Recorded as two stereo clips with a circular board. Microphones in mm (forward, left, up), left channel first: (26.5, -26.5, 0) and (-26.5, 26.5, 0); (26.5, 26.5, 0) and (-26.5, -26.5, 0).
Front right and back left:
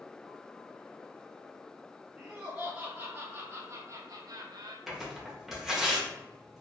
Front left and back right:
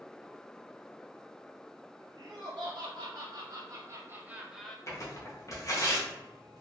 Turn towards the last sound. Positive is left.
turn(degrees=50)